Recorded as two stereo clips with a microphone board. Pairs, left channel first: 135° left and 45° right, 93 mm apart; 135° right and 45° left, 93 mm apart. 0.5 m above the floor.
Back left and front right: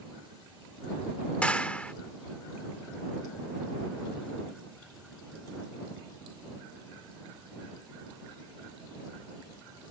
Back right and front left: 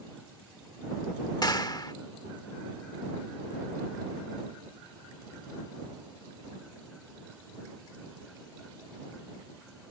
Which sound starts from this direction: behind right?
A clap, at 1.4 s.